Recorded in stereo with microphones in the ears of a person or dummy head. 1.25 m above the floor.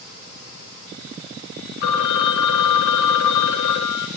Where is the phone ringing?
65° left (ahead or behind), 1.3 m.